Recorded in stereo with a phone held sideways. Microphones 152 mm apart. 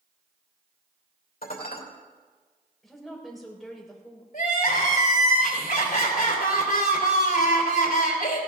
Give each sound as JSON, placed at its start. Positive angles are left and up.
{"t": 1.4, "sound": "dishes clattering", "side_deg": 85, "distance_m": 3.0}
{"t": 2.8, "sound": "a woman speaking", "side_deg": 0, "distance_m": 4.0}
{"t": 4.3, "sound": "crying", "side_deg": 80, "distance_m": 3.5}